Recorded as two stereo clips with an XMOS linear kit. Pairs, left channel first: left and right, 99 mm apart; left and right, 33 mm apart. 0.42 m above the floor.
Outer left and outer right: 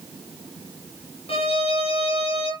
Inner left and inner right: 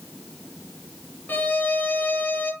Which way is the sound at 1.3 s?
80° left.